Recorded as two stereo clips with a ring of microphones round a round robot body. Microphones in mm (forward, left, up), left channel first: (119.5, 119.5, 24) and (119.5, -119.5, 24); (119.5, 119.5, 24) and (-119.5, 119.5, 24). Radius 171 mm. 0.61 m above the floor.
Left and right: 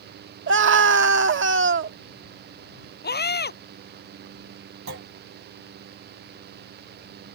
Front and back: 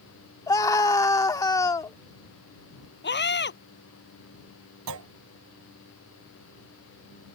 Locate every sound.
0.5 s a scream: 75° right
3.0 s a scream: 45° left
4.9 s a clunk: 145° right